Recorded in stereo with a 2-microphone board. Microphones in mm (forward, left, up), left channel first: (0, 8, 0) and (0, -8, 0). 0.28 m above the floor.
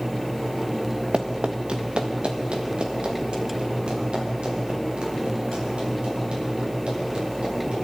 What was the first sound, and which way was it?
Running footsteps, 70° right (ahead or behind).